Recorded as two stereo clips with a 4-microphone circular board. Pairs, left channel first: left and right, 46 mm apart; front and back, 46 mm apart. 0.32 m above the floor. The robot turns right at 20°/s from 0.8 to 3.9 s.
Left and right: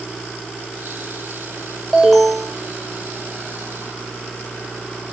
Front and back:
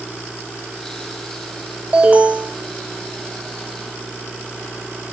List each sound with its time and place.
1.9 s an alarm: 170° left, 0.7 m; by 2.5 s 175° right, 0.7 m